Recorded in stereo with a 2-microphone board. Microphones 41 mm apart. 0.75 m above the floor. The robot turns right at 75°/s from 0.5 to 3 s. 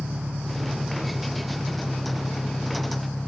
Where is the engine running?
70° right; by 3.3 s 115° left.